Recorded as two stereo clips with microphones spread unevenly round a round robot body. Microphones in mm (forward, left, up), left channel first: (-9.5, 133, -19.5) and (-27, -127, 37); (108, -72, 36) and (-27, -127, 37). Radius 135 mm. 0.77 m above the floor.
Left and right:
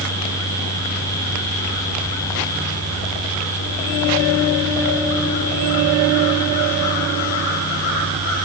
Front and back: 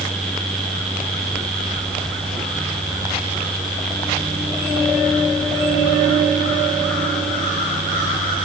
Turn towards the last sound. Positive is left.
No sound to turn to.